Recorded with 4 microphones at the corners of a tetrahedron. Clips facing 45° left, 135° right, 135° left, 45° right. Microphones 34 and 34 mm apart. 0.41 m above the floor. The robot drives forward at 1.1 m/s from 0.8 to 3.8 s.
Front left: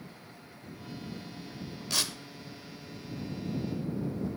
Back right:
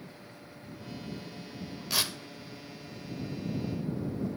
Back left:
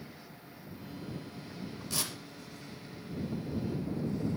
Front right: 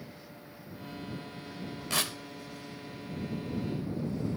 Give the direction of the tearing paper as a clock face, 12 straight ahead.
2 o'clock.